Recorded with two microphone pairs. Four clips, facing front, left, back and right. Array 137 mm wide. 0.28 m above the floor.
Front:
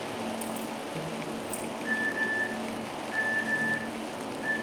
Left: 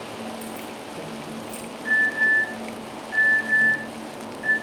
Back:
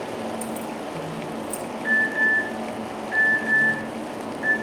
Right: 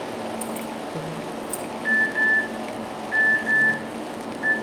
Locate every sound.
0.4 s keys jangling: 95° right, 6 m
1.8 s an alarm: 110° right, 6.5 m